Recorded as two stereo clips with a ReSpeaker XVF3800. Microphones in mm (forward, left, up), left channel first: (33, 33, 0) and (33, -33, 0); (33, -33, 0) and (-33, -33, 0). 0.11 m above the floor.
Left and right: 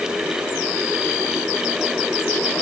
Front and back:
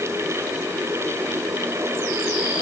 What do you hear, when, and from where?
Only background noise.